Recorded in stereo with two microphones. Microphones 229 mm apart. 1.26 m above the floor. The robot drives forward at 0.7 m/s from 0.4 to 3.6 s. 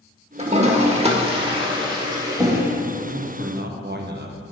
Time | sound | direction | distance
0.4 | a toilet flushing | 30° right (ahead or behind) | 0.9 m
3.0 | a man speaking | 65° right (ahead or behind) | 0.7 m